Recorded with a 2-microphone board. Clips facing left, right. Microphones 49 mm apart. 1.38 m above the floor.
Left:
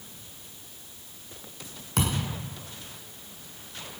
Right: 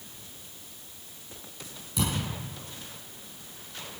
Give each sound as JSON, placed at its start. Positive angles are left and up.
{"t": 2.0, "sound": "a thud", "side_deg": 65, "distance_m": 6.0}